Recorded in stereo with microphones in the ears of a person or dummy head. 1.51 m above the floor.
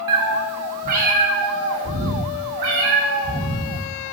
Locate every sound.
0.1 s a cat meowing: 25° right (ahead or behind), 1.0 m; by 3.9 s 75° right (ahead or behind), 3.5 m